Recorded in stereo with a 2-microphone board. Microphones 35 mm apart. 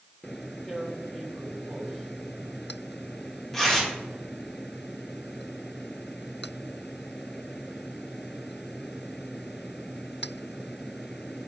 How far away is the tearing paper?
About 1.8 m.